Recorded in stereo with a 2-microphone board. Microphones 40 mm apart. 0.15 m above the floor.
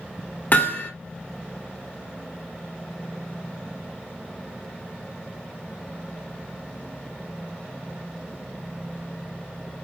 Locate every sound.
0.5 s hammering: 45° left (ahead or behind), 1.6 m